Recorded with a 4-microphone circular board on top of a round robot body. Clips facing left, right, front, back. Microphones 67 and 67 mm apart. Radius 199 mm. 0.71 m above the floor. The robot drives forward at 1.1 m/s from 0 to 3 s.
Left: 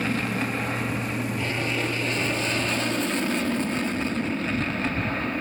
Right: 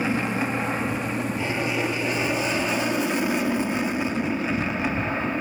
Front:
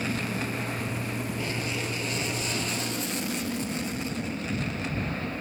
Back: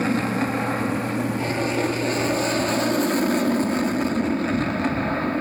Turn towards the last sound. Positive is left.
turn(degrees=-165)